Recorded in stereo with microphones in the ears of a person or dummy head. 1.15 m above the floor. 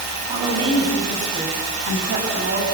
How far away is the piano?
I don't hear a piano.